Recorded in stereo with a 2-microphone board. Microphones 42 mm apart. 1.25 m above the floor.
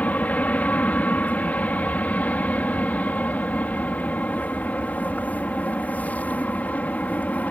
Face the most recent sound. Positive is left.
turn(degrees=35)  # may be behind; listen again after turning